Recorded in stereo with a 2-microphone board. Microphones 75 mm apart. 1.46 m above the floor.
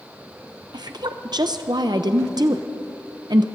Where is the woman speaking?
70° right (ahead or behind), 0.6 m.